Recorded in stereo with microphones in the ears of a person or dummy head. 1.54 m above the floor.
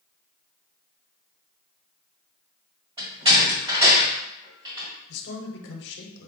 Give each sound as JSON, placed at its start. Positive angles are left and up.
{"t": 3.0, "sound": "a door slam", "side_deg": -25, "distance_m": 1.5}
{"t": 5.1, "sound": "a man speaking", "side_deg": 65, "distance_m": 0.9}